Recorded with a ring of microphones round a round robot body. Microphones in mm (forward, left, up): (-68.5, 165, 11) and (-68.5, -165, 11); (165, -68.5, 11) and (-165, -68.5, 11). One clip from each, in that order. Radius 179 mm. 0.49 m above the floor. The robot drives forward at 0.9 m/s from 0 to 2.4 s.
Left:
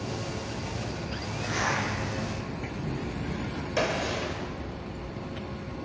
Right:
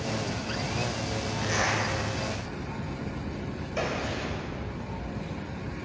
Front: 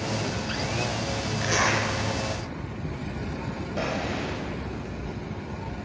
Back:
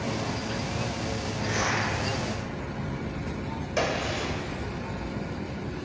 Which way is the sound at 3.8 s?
135° left.